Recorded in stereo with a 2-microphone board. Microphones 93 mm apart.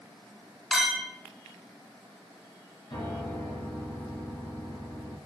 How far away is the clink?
About 0.9 m.